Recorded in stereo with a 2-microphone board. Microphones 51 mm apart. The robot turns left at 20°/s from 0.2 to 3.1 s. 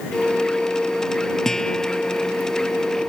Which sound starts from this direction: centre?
A guitar, at 1.4 s.